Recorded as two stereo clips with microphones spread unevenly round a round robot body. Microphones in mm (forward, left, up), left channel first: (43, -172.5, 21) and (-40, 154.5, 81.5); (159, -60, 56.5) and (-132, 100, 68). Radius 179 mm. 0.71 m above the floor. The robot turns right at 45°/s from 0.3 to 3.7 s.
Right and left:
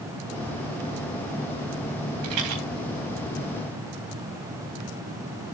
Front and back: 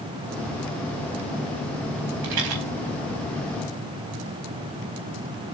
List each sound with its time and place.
2.2 s a rattle: 135° left, 3.5 m; by 2.6 s 150° left, 3.5 m